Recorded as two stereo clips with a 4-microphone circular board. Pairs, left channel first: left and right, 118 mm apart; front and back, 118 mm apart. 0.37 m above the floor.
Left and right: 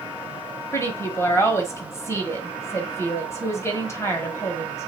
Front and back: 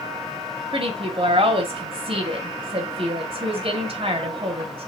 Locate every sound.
0.7 s a woman speaking: 155° left, 1.7 m